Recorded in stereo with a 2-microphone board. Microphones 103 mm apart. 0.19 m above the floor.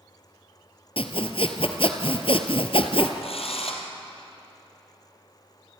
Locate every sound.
1.0 s sawing: 65° left (ahead or behind), 1.5 m
3.2 s a drill: 75° left (ahead or behind), 3 m